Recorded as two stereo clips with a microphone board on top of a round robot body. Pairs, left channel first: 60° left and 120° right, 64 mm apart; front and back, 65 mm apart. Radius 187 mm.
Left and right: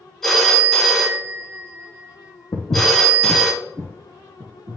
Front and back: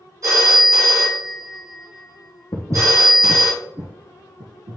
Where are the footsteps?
35° left, 0.9 m; by 4.8 s 175° right, 1.1 m.